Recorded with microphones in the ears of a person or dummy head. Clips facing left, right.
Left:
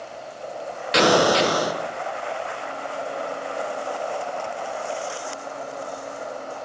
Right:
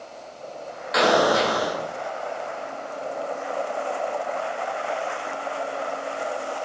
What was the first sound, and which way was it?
An explosion, 40° left (ahead or behind).